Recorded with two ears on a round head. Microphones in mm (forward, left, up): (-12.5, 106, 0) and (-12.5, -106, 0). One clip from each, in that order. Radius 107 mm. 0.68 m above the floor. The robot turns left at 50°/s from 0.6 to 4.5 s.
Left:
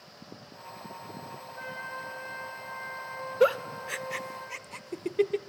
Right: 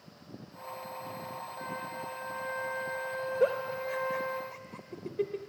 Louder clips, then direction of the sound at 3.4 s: Left 5 dB; 55° left (ahead or behind).